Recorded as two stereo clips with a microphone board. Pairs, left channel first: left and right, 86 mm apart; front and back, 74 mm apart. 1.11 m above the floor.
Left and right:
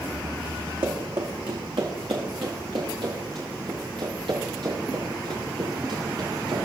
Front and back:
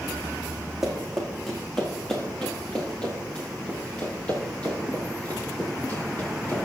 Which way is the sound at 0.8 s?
95° right.